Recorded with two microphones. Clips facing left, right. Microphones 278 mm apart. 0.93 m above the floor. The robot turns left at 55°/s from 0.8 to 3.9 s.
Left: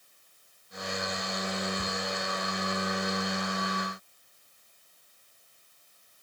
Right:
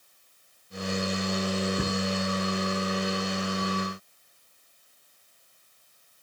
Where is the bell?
I don't hear a bell.